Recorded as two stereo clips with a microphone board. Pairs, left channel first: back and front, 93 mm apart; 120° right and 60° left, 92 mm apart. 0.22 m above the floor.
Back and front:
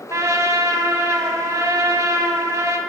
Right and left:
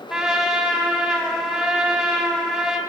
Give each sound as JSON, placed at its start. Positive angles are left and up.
{"t": 0.1, "sound": "a trumpet", "azimuth_deg": -20, "distance_m": 0.6}